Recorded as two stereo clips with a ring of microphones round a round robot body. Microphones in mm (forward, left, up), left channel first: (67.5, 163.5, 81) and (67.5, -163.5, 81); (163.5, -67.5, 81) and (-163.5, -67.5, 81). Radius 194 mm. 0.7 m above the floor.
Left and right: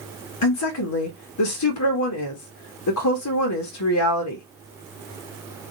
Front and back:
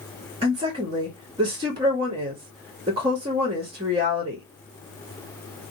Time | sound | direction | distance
0.4 | a woman speaking | 110° left | 1.1 m